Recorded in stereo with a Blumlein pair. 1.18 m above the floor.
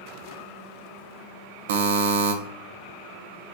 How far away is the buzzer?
About 0.5 m.